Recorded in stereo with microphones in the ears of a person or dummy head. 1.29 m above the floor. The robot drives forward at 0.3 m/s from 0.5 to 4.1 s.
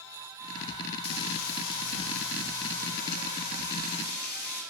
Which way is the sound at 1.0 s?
75° left (ahead or behind).